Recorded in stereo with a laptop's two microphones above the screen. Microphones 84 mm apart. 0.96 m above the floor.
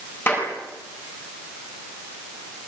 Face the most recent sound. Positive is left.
turn(degrees=30)  # may be behind; listen again after turning